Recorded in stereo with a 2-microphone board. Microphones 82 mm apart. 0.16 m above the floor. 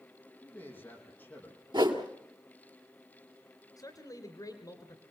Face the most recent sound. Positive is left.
turn(degrees=50)  # may be behind; listen again after turning